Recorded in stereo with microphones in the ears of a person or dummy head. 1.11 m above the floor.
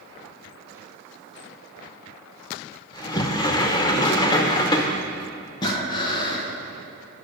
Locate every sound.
2.9 s a sliding door: 25° left (ahead or behind), 0.7 m
5.6 s breathing: 25° left (ahead or behind), 1.1 m